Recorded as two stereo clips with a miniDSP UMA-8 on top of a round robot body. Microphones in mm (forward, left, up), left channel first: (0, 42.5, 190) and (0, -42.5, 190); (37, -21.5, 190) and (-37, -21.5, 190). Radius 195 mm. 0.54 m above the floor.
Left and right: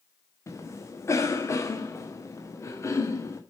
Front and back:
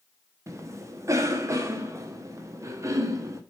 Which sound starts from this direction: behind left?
A cough, at 0.5 s.